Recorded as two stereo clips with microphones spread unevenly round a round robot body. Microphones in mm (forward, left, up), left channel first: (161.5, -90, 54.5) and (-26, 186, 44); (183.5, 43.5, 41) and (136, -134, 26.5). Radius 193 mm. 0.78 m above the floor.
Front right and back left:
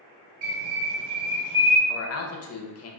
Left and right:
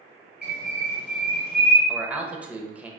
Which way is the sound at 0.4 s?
160° left.